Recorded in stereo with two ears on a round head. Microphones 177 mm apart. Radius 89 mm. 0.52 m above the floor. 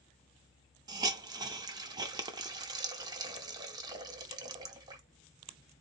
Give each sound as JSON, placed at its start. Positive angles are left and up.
{"t": 0.9, "sound": "a hiss", "side_deg": -20, "distance_m": 0.6}